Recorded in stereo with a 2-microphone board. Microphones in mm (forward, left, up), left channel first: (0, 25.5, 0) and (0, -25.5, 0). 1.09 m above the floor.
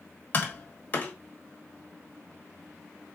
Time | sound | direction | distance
0.3 | tapping | 35° left (ahead or behind) | 1.2 m